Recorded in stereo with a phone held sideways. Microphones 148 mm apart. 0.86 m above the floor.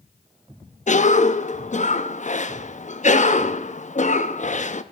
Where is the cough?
50° left (ahead or behind), 0.8 m.